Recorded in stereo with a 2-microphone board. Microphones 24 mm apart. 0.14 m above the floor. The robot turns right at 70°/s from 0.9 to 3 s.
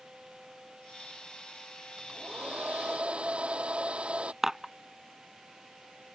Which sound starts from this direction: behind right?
A hair dryer, at 2.0 s.